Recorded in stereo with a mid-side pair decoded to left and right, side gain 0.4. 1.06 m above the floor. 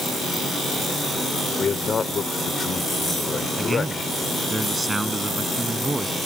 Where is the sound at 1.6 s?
45° left.